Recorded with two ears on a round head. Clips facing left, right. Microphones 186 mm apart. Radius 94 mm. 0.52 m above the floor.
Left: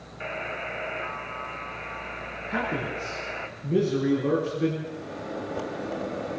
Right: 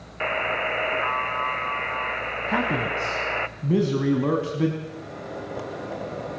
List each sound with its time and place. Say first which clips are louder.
0.2 s a buzzer: right 7 dB; 75° right (ahead or behind), 0.9 m
2.5 s a man speaking: right 4 dB; 70° right (ahead or behind), 4 m
4.8 s a microwave: left 1 dB; centre (ahead or behind), 3.5 m